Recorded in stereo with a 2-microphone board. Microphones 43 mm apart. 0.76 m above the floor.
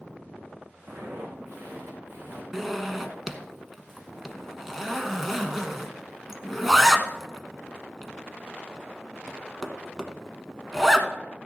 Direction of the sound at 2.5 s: 5° right (ahead or behind).